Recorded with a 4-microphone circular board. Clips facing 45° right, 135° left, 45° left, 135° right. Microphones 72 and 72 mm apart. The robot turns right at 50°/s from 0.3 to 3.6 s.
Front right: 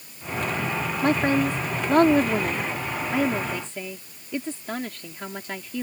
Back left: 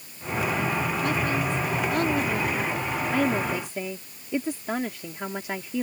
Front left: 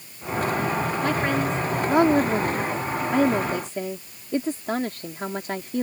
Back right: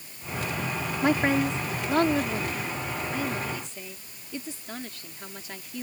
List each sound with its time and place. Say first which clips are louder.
1.0 s a woman speaking: front right 9 dB, back right 4 dB; 70° right; by 5.8 s 60° left